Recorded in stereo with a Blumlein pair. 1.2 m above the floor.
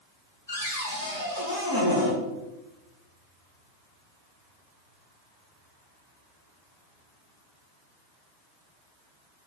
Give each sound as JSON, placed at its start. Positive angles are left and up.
{"t": 0.5, "sound": "a cupboard door", "azimuth_deg": 70, "distance_m": 4.0}